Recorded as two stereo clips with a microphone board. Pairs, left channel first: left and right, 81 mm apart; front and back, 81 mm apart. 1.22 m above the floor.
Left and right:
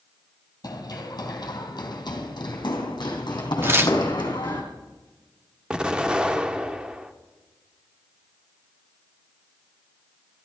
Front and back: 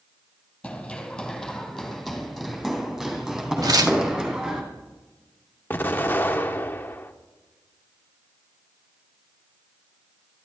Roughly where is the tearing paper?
Behind right.